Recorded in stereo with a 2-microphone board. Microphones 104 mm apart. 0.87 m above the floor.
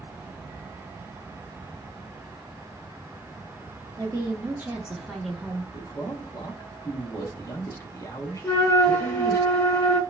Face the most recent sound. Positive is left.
turn(degrees=20)  # may be behind; listen again after turning